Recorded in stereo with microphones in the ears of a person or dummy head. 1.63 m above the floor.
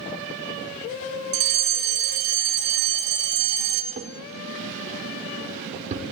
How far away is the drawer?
About 2.5 m.